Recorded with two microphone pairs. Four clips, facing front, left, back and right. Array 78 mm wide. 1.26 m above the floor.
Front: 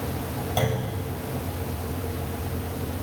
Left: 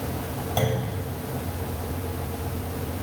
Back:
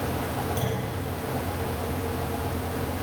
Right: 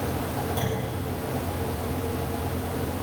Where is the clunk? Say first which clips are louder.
Left 3 dB, front 3 dB; 35° left, 8.5 m.